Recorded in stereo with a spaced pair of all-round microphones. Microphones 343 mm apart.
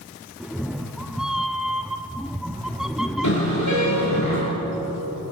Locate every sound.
0.4 s a cat meowing: centre (ahead or behind), 0.7 m
3.2 s a car horn: 55° left (ahead or behind), 8.5 m